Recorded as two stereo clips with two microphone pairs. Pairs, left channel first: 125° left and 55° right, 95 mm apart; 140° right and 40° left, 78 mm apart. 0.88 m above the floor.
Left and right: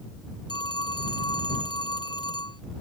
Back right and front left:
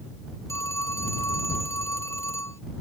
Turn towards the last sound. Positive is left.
turn(degrees=165)